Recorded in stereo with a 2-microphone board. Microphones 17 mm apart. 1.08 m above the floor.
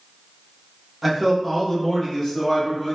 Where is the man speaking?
Centre (ahead or behind), 0.7 m; by 3.0 s 55° left (ahead or behind), 1.1 m.